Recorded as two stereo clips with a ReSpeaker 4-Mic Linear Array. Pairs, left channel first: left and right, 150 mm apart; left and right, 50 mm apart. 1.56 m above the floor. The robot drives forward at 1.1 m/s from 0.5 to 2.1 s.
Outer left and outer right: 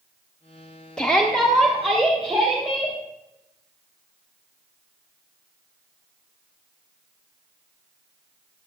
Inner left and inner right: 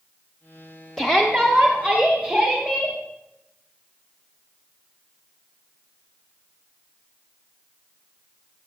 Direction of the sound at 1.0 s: 5° left (ahead or behind).